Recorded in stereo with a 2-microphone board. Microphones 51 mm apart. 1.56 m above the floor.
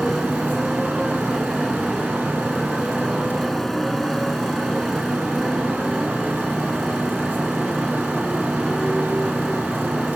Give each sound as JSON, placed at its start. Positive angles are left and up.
{"t": 0.0, "sound": "a motorcycle", "side_deg": 5}